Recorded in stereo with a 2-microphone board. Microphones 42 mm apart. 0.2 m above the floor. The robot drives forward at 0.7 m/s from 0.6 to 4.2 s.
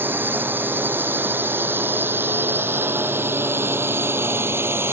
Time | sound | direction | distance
0.0 | a drone | 60° right (ahead or behind) | ?